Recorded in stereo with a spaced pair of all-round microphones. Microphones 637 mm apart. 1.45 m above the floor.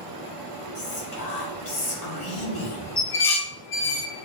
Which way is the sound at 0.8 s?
75° left (ahead or behind).